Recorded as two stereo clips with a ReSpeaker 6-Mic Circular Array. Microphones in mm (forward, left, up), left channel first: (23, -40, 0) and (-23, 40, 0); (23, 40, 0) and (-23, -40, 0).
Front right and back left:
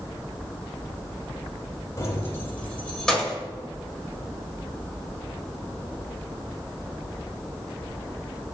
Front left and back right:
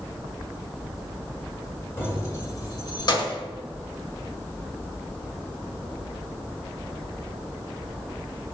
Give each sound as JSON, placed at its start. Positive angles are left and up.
{"t": 2.0, "sound": "keys jangling", "azimuth_deg": -5, "distance_m": 1.3}